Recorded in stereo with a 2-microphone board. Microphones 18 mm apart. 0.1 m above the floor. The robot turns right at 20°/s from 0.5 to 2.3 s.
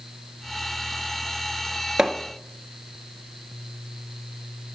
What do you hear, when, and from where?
2.0 s hammering: 35° right (ahead or behind), 1.3 m